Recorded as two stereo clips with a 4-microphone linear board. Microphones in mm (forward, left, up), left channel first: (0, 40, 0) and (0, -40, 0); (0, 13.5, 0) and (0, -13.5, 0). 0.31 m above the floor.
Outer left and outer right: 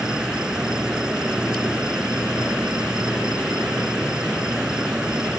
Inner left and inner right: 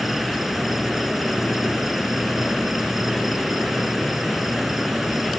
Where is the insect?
10° right (ahead or behind).